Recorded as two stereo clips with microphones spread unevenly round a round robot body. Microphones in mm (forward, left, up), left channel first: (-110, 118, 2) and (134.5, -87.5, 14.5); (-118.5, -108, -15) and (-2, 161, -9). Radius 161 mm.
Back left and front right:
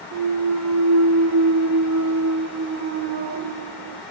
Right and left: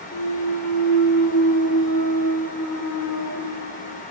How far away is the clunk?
About 0.5 m.